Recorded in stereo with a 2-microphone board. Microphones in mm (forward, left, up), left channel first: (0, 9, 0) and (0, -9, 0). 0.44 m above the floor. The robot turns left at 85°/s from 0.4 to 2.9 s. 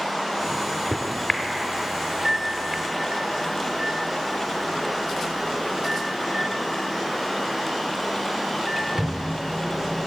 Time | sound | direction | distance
0.4 | a microwave | 35° left (ahead or behind) | 0.9 m